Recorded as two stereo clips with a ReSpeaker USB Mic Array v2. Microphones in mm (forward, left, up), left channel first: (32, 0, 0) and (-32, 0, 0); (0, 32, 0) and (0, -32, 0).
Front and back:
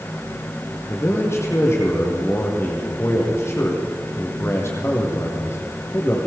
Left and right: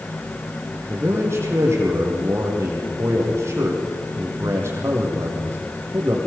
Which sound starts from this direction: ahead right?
A man speaking, at 0.9 s.